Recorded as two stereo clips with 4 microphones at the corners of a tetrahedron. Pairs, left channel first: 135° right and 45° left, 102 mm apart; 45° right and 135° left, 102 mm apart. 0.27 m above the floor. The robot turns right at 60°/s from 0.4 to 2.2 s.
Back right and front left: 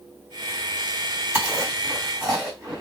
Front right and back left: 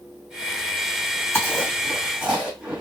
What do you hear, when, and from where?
1.3 s chewing: straight ahead, 1.9 m; by 2.8 s 50° left, 1.9 m